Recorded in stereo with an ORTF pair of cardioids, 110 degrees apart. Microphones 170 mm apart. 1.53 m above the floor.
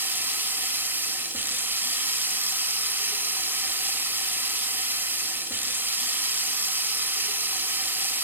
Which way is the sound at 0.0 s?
10° right.